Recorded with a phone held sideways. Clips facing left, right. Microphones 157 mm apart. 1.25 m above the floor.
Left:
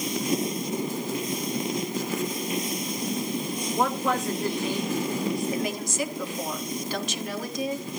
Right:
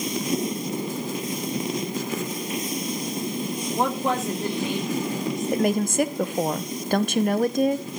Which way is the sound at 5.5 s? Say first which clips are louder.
Right 7 dB; 60° right (ahead or behind).